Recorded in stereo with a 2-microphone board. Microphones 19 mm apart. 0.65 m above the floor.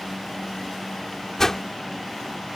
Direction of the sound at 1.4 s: 25° left (ahead or behind).